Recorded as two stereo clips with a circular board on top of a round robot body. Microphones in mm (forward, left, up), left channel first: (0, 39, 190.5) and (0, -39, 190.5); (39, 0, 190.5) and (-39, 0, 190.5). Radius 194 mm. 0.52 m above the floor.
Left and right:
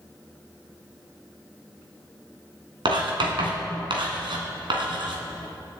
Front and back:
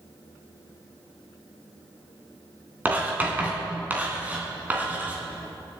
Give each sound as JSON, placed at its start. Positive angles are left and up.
{"t": 2.9, "sound": "writing", "azimuth_deg": -110, "distance_m": 3.0}